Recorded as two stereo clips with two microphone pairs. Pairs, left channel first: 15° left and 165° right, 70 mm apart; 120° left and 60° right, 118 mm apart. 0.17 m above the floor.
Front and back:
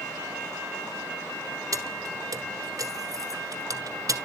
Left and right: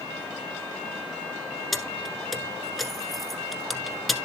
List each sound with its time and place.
1.7 s keys jangling: 150° right, 1.2 m